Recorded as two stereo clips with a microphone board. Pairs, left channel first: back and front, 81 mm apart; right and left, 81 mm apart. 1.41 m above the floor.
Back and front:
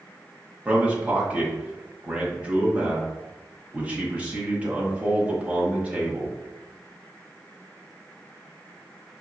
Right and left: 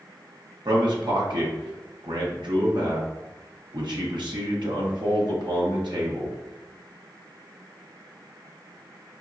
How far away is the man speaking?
About 1.2 m.